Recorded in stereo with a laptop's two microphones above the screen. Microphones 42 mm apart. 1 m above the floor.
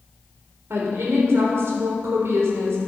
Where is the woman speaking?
80° right, 3.5 m.